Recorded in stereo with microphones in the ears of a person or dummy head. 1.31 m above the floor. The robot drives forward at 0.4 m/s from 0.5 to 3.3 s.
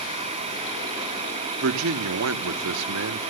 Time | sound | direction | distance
1.6 | a man speaking | 70° right (ahead or behind) | 1.0 m